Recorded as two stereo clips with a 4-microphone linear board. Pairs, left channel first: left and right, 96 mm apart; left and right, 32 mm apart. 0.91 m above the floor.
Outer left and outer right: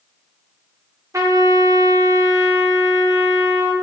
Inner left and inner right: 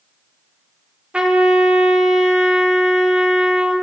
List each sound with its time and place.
1.1 s a trumpet: 35° right (ahead or behind), 0.6 m